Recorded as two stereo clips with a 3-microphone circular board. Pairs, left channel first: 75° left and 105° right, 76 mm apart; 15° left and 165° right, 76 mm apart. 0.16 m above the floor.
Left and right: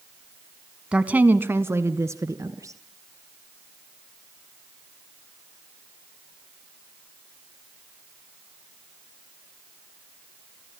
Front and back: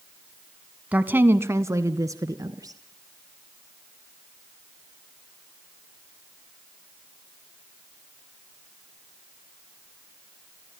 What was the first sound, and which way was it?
A woman speaking, 150° right.